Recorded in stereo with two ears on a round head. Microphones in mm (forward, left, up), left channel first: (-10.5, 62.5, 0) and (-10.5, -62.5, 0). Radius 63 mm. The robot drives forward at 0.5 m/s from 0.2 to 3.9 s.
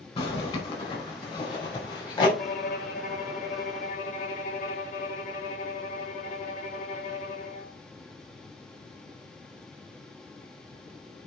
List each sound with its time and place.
0.2 s a zipper: 45° left (ahead or behind), 4.5 m; by 2.3 s 35° left (ahead or behind), 5 m
2.4 s a violin: 70° left (ahead or behind), 2.5 m; by 7.8 s 60° left (ahead or behind), 2.5 m